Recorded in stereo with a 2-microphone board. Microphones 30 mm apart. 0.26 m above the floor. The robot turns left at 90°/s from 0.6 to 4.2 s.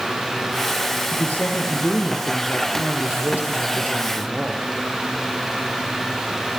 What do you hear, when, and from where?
1.1 s a woman speaking: 135° left, 5 m; by 4.6 s 145° right, 5 m